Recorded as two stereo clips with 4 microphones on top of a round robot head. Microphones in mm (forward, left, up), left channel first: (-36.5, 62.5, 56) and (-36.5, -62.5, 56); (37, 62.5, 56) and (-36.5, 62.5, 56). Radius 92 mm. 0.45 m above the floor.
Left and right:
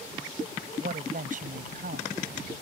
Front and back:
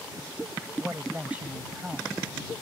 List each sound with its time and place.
0.8 s a woman speaking: 105° right; by 2.2 s 100° right